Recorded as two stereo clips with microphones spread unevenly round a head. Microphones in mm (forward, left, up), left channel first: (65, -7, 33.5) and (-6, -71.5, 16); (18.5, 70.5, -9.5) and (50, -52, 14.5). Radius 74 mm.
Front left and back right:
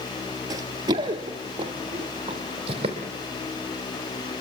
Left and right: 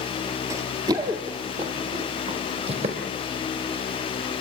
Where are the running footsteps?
100° right, 1.8 m; by 3.0 s 110° right, 3.5 m.